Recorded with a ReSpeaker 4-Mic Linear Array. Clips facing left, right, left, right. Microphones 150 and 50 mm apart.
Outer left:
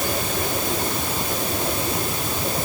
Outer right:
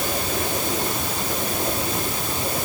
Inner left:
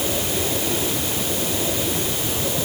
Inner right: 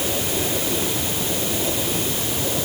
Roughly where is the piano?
I don't hear a piano.